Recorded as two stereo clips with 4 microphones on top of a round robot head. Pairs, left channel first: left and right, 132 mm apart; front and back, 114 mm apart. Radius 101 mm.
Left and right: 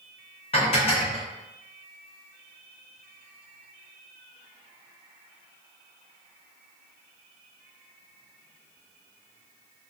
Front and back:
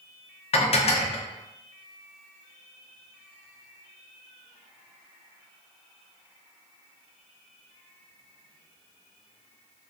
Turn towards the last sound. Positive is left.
turn(degrees=35)